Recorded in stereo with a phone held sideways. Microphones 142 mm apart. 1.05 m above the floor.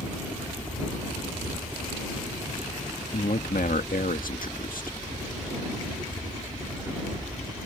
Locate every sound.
0.0 s a helicopter: 15° right (ahead or behind)
3.1 s a man speaking: 80° left